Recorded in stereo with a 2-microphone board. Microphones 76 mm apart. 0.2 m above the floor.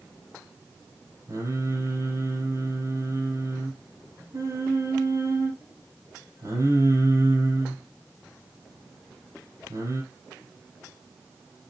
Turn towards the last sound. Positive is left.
turn(degrees=-45)  # may be behind; listen again after turning